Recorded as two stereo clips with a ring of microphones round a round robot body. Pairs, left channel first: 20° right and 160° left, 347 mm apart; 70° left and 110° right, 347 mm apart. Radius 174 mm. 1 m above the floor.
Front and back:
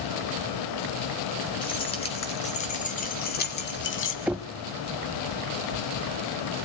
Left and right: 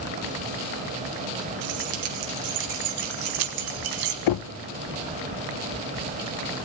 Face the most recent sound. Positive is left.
turn(degrees=70)